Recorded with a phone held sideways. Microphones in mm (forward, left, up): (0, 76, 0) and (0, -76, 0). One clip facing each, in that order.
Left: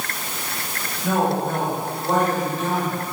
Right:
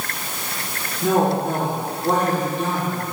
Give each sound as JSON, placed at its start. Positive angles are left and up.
{"t": 1.0, "sound": "a woman speaking", "side_deg": -75, "distance_m": 2.5}